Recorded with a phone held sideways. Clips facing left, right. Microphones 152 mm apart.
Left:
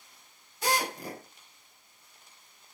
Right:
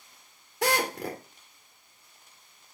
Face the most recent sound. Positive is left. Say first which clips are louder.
# right 3 dB
turn(degrees=-80)